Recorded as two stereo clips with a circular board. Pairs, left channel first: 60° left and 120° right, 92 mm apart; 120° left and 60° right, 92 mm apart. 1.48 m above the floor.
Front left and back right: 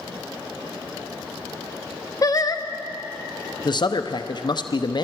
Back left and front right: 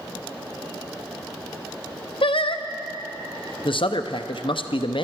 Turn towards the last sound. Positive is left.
turn(degrees=95)